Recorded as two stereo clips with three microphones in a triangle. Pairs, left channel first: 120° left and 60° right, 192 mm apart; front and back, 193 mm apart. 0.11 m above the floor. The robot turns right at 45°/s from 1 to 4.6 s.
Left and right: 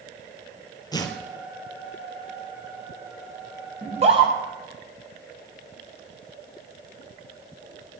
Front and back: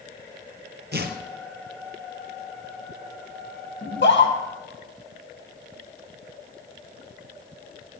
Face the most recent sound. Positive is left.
turn(degrees=20)